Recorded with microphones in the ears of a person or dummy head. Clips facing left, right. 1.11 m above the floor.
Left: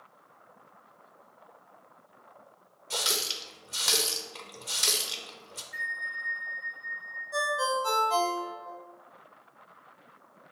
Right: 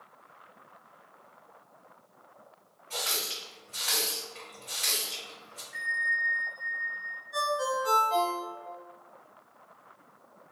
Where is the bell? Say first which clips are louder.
Right 9 dB; 35° left (ahead or behind), 1.2 m.